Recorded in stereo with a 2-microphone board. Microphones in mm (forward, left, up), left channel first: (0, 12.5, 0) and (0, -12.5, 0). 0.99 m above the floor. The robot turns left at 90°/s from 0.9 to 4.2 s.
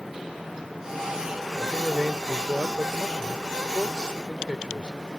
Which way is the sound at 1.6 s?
5° left.